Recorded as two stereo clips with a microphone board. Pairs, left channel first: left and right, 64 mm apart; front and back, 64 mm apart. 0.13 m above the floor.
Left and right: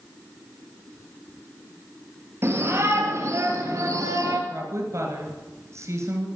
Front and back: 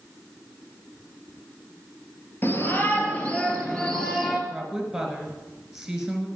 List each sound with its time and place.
2.4 s a shout: 50° right, 2.5 m; by 4.4 s 85° right, 2 m
4.5 s a woman speaking: 95° right, 2 m